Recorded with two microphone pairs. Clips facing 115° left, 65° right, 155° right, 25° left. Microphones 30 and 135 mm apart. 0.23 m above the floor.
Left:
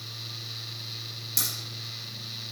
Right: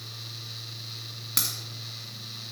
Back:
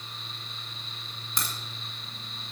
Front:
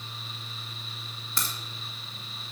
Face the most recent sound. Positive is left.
turn(degrees=-85)